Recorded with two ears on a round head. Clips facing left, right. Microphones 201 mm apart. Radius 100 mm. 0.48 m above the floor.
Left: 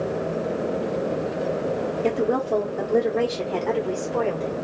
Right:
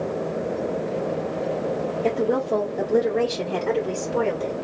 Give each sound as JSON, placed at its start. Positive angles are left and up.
{"t": 2.0, "sound": "a woman speaking", "side_deg": 15, "distance_m": 1.0}